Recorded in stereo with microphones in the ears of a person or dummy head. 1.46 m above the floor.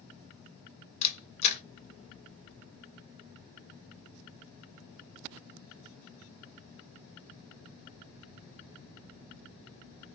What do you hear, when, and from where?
1.0 s a camera shutter: 45° left (ahead or behind), 0.5 m